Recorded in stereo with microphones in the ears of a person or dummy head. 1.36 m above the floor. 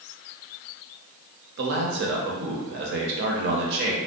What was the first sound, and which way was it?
A man speaking, 60° right (ahead or behind).